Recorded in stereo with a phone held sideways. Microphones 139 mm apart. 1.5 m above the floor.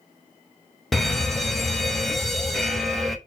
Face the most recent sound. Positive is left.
turn(degrees=0)  # may be behind; listen again after turning